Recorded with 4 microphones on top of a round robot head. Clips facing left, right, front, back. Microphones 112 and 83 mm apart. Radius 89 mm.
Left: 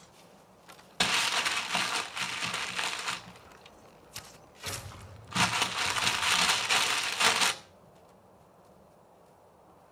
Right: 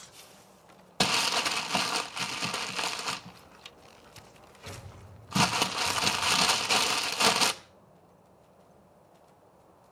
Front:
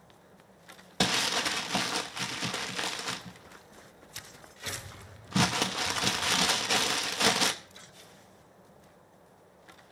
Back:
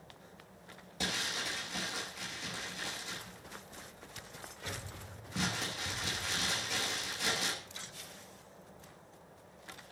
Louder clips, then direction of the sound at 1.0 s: Right 3 dB, front 9 dB; 30° right.